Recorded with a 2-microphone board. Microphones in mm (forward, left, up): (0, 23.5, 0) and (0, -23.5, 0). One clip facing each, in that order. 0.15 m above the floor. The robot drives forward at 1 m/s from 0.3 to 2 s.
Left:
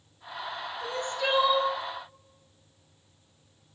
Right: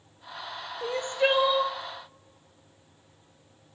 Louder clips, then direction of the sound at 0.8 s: Right 5 dB; 40° right (ahead or behind).